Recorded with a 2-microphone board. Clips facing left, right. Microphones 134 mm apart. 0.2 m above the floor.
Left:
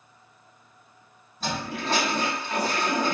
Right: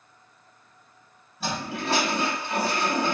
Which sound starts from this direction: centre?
A toilet flushing, at 1.4 s.